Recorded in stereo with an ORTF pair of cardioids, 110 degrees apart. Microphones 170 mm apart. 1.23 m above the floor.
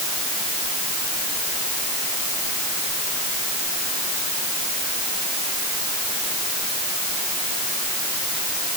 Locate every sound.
Only background noise.